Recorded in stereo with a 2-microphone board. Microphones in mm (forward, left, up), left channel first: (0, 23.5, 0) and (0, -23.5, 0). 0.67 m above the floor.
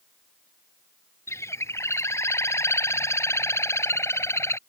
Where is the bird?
75° left (ahead or behind).